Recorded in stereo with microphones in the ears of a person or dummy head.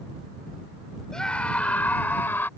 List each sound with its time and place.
1.1 s a scream: 5° left (ahead or behind); by 2.5 s 10° left (ahead or behind)